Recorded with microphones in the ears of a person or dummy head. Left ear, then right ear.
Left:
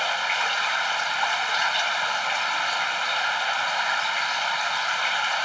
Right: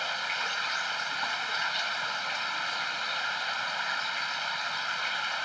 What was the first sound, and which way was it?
Running water, 35° left (ahead or behind).